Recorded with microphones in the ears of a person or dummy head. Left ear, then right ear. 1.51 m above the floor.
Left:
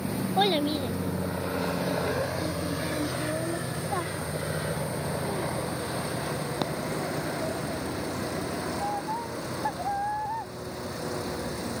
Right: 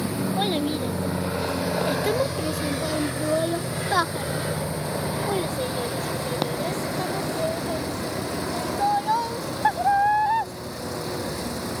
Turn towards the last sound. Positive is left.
turn(degrees=-80)